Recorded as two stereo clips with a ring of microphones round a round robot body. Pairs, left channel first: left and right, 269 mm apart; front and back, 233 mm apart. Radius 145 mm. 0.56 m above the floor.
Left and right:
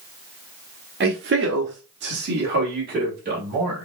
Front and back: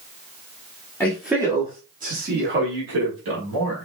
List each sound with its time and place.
1.0 s a man speaking: 75° right, 1.0 m; by 3.9 s 150° right, 3 m